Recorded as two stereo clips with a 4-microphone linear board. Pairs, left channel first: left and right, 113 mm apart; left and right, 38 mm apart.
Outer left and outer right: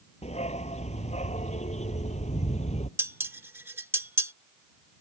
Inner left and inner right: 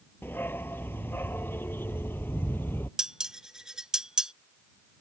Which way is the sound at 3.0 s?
20° right (ahead or behind).